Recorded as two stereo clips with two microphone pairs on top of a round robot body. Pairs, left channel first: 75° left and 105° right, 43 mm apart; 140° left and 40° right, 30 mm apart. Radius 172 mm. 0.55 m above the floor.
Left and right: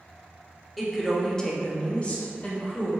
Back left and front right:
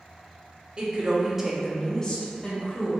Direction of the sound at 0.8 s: Straight ahead.